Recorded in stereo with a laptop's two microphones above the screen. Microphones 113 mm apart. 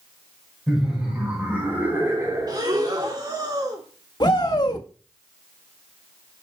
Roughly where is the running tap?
I don't hear a running tap.